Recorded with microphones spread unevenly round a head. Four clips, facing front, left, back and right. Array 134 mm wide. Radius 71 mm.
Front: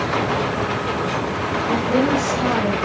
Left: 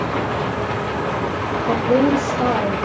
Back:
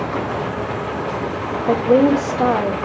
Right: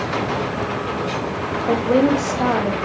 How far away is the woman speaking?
About 3 m.